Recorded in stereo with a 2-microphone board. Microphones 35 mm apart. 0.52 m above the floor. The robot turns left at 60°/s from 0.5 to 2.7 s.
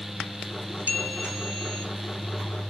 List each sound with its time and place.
0.9 s a bell: 125° right, 4 m; by 1.9 s straight behind, 4 m